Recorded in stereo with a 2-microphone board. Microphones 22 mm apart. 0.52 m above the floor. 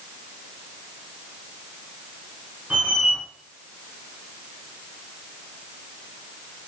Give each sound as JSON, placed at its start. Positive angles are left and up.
{"t": 2.7, "sound": "a squeak", "side_deg": -60, "distance_m": 3.5}